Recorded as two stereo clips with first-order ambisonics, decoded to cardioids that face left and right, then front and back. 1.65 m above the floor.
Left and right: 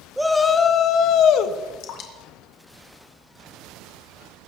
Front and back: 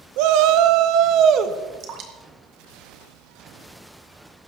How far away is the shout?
About 0.6 m.